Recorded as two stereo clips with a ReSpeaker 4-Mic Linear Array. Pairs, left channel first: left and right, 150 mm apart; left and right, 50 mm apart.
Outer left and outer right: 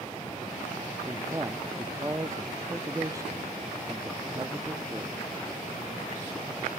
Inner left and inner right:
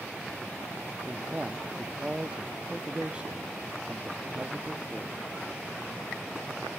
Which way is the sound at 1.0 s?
20° right (ahead or behind).